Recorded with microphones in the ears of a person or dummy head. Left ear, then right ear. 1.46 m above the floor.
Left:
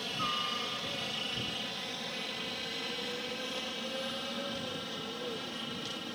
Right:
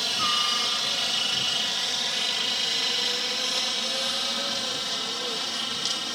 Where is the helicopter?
40° right (ahead or behind); by 6.2 s 45° right (ahead or behind).